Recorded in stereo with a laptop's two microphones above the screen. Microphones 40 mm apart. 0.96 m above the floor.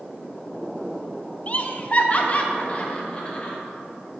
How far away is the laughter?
About 0.5 m.